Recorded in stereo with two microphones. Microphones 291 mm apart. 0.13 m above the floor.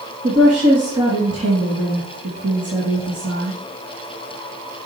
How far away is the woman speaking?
About 3 m.